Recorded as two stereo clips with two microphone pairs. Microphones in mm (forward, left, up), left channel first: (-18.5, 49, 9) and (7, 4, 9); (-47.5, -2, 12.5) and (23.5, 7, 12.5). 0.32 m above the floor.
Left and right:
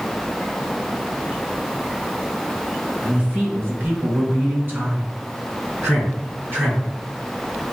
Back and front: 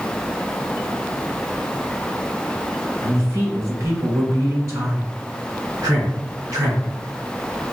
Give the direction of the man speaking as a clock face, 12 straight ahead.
1 o'clock.